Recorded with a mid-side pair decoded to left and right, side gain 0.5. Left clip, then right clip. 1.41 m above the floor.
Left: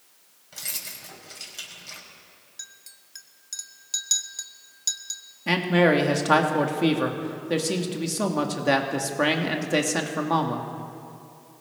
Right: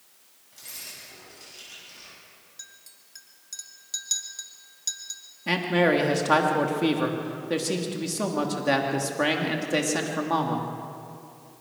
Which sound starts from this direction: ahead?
A man speaking, at 5.5 s.